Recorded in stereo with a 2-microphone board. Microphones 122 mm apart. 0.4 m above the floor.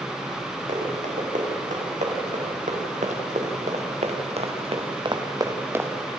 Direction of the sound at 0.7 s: 85° right.